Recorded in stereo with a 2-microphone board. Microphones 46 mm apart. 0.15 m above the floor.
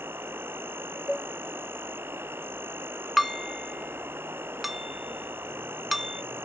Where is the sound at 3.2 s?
Centre (ahead or behind).